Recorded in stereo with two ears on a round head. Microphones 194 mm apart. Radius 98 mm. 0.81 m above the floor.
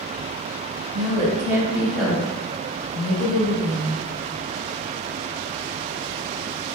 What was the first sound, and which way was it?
A woman speaking, 30° right (ahead or behind).